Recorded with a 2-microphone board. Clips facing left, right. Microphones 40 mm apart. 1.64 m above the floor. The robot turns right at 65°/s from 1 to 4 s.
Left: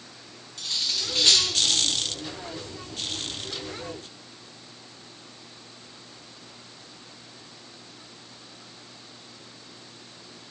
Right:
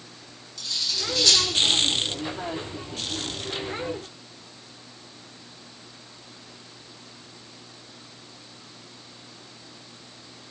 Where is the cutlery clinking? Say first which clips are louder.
Even; 40° left (ahead or behind), 0.9 m; by 1.4 s 25° left (ahead or behind), 0.9 m.